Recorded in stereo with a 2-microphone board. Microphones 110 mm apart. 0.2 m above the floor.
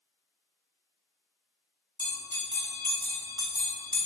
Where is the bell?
35° right (ahead or behind), 0.8 m.